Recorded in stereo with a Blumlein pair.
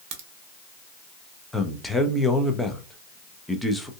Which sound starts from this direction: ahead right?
A crack, at 0.1 s.